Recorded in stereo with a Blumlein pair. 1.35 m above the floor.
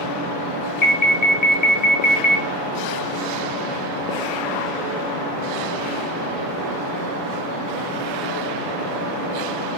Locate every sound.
0.8 s an alarm: 40° left, 1.0 m